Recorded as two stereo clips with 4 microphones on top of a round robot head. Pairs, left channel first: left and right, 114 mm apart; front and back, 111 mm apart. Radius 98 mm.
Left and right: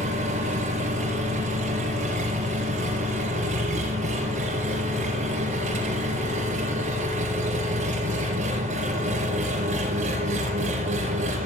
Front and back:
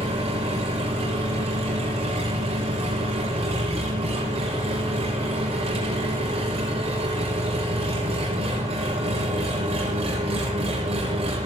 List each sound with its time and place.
0.0 s an engine running: 125° right, 3.5 m